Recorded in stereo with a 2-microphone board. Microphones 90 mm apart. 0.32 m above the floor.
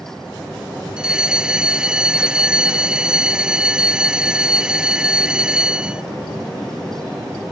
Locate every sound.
1.0 s a fire alarm: 10° right (ahead or behind)